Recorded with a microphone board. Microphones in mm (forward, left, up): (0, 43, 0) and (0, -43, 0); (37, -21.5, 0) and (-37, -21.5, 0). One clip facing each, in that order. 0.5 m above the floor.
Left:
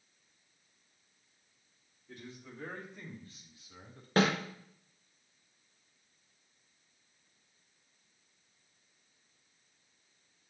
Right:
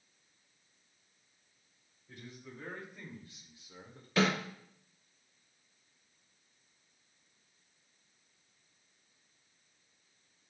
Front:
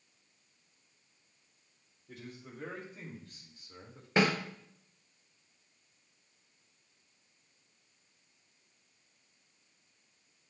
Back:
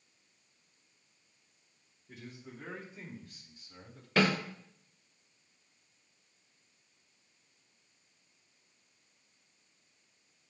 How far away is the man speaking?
About 2.5 m.